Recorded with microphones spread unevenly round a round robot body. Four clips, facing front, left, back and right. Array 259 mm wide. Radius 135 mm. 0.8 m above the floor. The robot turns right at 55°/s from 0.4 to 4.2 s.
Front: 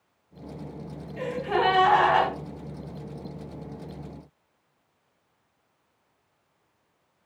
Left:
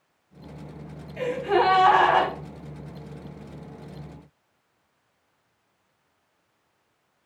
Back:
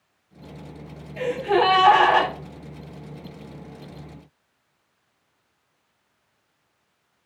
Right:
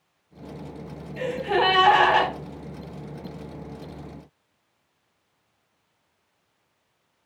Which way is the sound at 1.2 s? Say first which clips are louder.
Left 1 dB, back 5 dB; 170° right.